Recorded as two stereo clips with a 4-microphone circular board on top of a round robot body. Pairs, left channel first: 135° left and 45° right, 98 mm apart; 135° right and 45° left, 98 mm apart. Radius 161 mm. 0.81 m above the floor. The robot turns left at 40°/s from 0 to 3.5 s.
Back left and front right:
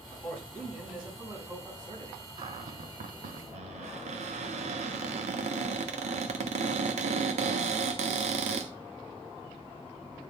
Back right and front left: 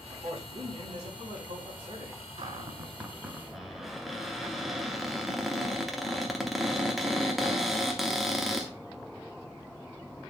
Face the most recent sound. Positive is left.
turn(degrees=-45)